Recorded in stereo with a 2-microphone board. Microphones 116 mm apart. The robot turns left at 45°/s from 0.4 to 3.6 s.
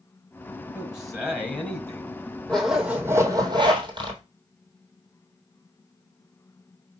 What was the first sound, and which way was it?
A man speaking, 165° right.